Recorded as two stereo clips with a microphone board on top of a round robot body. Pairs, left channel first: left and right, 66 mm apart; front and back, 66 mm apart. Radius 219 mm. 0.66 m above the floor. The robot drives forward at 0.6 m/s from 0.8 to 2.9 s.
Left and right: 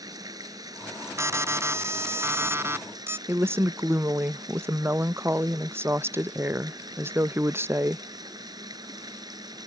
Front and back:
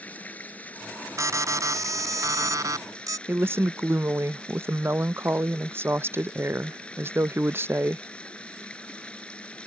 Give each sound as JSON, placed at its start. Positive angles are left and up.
{"t": 0.0, "sound": "running water", "azimuth_deg": -65}
{"t": 1.2, "sound": "an alarm", "azimuth_deg": -140}
{"t": 3.3, "sound": "a woman speaking", "azimuth_deg": -135}